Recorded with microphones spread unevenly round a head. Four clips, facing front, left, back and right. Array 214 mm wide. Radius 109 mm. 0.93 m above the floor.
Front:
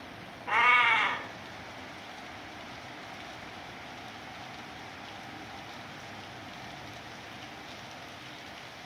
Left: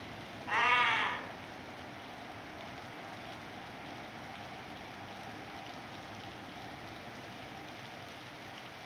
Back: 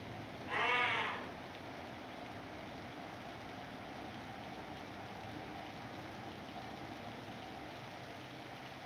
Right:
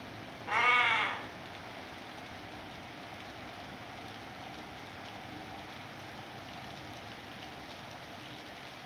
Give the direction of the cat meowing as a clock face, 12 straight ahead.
1 o'clock.